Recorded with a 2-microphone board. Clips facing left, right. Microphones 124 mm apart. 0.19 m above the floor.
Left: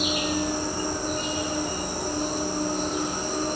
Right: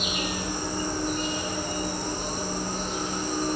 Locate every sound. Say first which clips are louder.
0.0 s an insect: left 5 dB; 35° left (ahead or behind), 1.3 m